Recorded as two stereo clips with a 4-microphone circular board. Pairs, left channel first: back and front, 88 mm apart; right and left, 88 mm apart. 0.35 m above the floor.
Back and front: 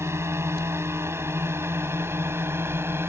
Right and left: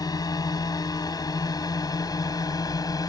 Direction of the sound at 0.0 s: 55° right.